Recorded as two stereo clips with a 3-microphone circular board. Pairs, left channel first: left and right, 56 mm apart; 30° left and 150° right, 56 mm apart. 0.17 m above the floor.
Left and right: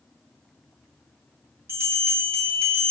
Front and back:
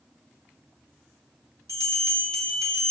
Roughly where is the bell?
Behind right.